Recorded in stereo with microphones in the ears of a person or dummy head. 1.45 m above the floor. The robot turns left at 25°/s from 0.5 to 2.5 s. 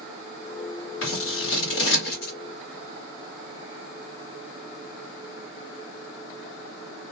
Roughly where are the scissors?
Left.